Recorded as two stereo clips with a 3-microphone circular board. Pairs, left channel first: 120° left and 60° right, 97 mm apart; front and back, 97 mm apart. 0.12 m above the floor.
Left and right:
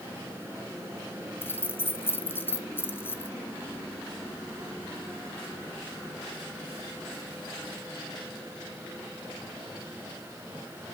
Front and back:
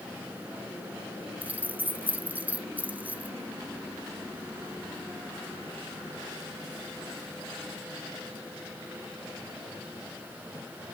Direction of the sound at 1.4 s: 135° left.